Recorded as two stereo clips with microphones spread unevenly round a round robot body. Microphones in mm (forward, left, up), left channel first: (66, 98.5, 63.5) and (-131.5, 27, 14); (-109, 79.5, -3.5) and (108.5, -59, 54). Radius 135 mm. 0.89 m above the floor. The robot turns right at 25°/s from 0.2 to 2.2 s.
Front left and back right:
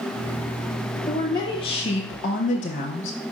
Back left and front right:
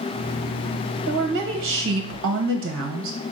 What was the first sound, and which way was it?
A woman speaking, 65° right.